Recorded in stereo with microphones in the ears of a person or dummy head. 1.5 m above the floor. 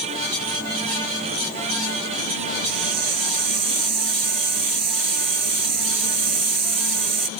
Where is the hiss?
65° right (ahead or behind).